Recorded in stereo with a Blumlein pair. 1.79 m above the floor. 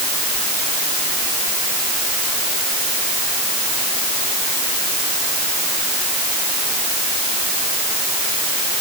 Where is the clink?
I don't hear a clink.